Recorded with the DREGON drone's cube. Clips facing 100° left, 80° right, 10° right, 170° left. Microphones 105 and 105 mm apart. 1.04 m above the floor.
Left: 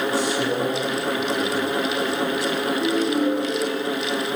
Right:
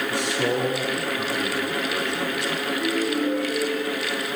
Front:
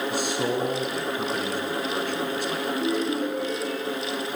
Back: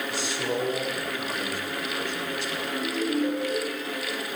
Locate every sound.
0.1 s a man speaking: 50° right, 9 m
2.7 s a ringtone: 35° left, 8 m